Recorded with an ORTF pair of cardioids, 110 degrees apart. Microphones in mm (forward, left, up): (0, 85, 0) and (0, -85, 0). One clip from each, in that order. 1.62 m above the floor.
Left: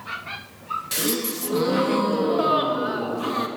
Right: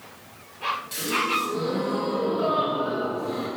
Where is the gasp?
50° left, 1.1 m.